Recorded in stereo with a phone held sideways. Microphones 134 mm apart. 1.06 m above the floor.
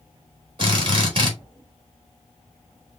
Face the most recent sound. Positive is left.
turn(degrees=-45)  # may be behind; listen again after turning